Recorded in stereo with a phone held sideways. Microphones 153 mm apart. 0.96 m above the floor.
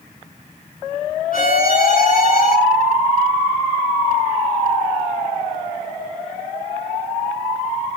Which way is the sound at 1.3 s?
65° left (ahead or behind).